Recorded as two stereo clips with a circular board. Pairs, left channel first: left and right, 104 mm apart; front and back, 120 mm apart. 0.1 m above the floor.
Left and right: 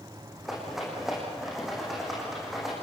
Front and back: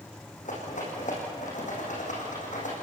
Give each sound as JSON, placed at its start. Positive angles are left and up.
{"t": 0.5, "sound": "a rattle", "azimuth_deg": -5, "distance_m": 6.5}